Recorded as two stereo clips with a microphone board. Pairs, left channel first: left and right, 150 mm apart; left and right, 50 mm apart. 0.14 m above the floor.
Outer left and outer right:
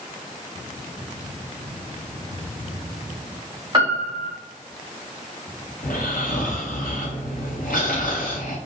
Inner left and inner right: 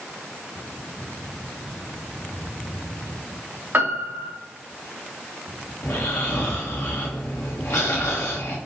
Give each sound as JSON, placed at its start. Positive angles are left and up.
{"t": 3.7, "sound": "a piano", "side_deg": -35, "distance_m": 3.5}
{"t": 5.8, "sound": "snoring", "side_deg": 85, "distance_m": 3.0}